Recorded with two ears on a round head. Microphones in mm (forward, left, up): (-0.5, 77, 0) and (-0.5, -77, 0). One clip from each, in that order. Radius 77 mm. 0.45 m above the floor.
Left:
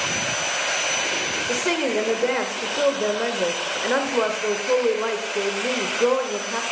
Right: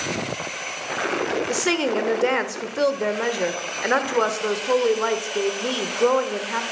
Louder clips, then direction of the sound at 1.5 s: Even; 30° right (ahead or behind).